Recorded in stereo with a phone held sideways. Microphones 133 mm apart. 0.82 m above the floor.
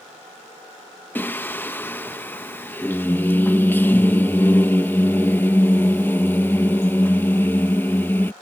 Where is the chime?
I don't hear a chime.